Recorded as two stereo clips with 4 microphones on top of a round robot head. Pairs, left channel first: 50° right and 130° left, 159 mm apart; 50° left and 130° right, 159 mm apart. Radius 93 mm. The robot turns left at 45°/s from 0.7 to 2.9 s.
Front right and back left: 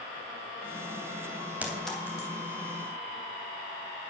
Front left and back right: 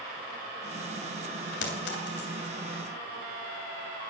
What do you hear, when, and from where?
1.6 s a clink: 50° left, 3 m; by 2.3 s 20° left, 3 m